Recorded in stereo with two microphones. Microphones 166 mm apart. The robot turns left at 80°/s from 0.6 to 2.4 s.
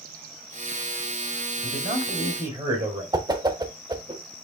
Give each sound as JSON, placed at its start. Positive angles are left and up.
{"t": 1.6, "sound": "a man speaking", "azimuth_deg": -95, "distance_m": 2.0}
{"t": 3.1, "sound": "a whoosh", "side_deg": -25, "distance_m": 0.6}